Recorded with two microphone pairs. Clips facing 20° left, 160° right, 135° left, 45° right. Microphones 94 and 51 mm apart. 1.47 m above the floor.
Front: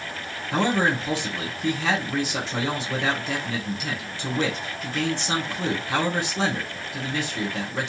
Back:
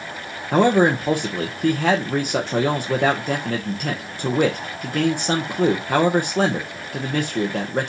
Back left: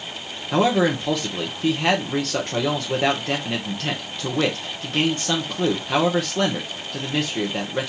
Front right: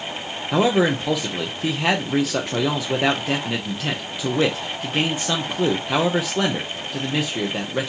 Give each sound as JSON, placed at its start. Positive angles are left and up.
{"t": 0.5, "sound": "a man speaking", "azimuth_deg": -125, "distance_m": 0.7}